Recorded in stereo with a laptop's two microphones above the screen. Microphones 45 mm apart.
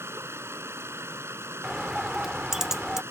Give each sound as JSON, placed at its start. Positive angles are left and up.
{"t": 0.0, "sound": "running water", "side_deg": -70}
{"t": 1.6, "sound": "a bird", "side_deg": -10}